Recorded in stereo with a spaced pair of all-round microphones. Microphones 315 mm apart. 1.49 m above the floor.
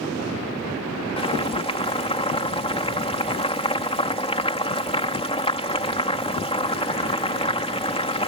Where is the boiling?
20° left (ahead or behind).